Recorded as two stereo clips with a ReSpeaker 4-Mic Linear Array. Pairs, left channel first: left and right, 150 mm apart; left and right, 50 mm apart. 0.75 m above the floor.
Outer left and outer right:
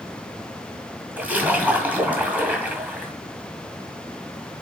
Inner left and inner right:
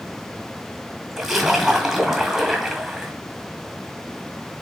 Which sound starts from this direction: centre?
A splash, at 1.2 s.